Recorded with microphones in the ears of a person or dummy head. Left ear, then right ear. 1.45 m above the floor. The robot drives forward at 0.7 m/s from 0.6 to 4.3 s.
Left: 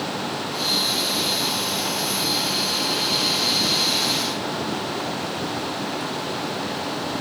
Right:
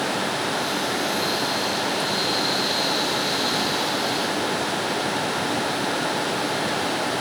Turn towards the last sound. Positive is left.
No sound to turn to.